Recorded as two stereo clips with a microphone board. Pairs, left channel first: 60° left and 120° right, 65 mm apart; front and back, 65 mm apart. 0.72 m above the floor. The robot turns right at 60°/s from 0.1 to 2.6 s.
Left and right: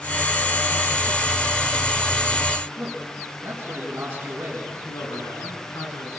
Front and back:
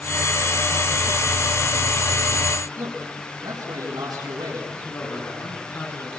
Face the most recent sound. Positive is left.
turn(degrees=50)